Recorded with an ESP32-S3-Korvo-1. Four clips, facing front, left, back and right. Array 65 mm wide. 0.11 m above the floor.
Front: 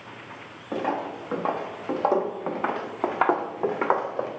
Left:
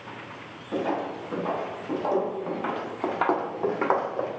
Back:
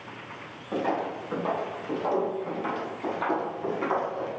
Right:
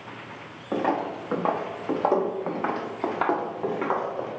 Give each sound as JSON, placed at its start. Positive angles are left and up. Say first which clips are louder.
{"t": 0.7, "sound": "footsteps", "louder": "right 2 dB, even", "azimuth_deg": -65, "distance_m": 1.5}